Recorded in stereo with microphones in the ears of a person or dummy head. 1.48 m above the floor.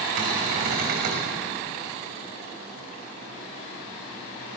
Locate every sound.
0.2 s a cupboard door: 50° right (ahead or behind), 6 m